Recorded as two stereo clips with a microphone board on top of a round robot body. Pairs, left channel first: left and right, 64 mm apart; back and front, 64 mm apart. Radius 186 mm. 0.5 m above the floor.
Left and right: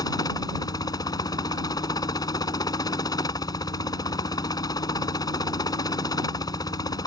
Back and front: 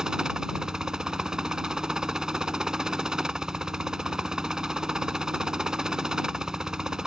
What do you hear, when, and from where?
0.0 s a helicopter: 80° left